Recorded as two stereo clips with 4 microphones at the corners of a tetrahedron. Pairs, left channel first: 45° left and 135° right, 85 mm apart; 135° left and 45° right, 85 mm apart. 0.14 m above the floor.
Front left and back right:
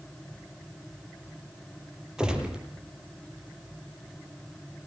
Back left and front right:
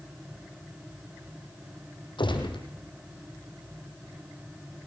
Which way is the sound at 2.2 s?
145° left.